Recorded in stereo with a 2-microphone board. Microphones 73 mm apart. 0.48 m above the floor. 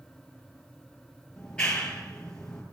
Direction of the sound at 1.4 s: 15° left (ahead or behind).